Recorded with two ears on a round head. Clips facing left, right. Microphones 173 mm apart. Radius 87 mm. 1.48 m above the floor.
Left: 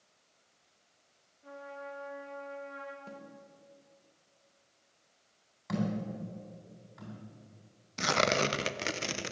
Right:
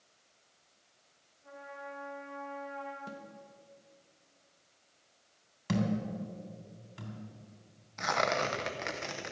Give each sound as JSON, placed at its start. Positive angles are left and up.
{"t": 1.4, "sound": "a trumpet", "side_deg": 55, "distance_m": 2.5}
{"t": 3.1, "sound": "a snare drum", "side_deg": -15, "distance_m": 1.6}
{"t": 5.7, "sound": "a thud", "side_deg": -40, "distance_m": 3.0}
{"t": 8.0, "sound": "tearing paper", "side_deg": 40, "distance_m": 0.6}